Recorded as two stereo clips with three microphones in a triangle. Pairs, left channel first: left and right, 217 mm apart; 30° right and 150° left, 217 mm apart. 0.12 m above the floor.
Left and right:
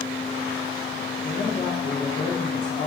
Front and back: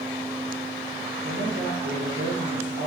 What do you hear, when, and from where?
1.2 s a woman speaking: 125° left, 4 m